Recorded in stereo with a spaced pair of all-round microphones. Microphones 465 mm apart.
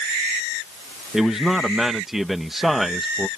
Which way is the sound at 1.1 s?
Centre (ahead or behind).